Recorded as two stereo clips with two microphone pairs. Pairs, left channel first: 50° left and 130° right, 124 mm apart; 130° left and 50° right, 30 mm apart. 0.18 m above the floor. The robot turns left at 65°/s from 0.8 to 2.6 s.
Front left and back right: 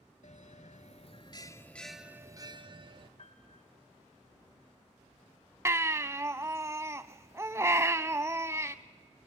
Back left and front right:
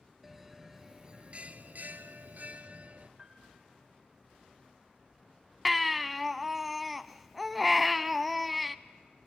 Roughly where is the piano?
Ahead.